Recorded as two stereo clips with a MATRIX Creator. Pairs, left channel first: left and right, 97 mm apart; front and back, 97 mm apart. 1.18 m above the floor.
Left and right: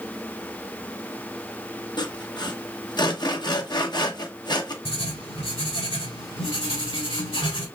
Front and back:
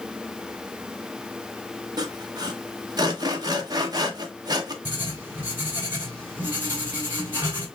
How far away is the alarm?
I don't hear an alarm.